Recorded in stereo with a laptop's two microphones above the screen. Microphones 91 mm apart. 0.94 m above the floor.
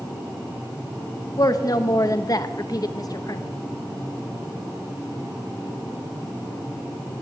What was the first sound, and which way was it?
A woman speaking, 45° left (ahead or behind).